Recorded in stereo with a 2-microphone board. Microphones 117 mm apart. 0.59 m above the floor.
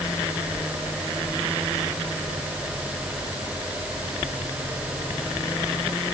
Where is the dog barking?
No dog barking in this recording.